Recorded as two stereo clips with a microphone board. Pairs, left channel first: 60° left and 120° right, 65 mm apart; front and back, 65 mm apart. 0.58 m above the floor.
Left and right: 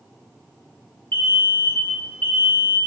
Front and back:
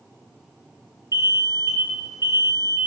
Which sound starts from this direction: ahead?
An alarm, at 1.1 s.